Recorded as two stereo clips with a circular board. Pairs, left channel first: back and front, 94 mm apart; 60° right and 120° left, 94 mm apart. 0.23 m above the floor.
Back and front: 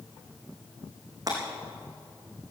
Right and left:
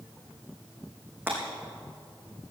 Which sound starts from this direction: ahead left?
Breaking glass, at 1.3 s.